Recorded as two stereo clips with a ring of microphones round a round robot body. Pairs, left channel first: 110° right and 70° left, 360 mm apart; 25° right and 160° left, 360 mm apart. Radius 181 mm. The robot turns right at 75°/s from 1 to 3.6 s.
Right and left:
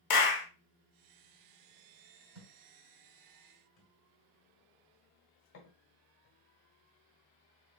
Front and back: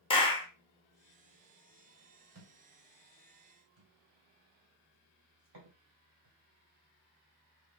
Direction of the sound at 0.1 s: 95° right.